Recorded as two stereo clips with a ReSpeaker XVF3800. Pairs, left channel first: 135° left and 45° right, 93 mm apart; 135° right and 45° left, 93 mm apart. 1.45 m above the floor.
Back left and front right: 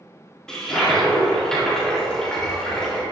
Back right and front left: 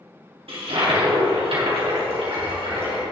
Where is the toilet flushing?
50° left, 3 m.